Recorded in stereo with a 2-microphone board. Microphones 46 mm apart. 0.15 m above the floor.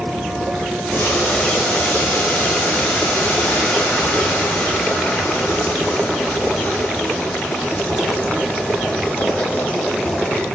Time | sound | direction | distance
0.9 | boiling | 50° left (ahead or behind) | 9.5 m